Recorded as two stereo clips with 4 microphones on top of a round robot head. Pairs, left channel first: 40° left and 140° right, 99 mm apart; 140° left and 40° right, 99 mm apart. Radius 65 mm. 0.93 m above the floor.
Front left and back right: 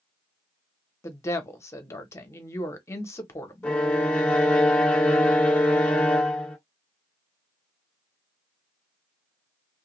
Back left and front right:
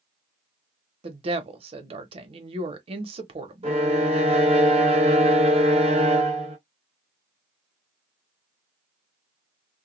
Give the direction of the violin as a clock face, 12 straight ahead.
1 o'clock.